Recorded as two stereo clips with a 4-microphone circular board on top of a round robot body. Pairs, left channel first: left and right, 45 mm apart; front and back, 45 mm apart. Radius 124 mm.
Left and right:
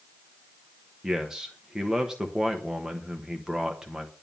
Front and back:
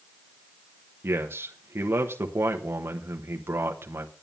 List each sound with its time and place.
1.0 s a man speaking: 165° right, 1.3 m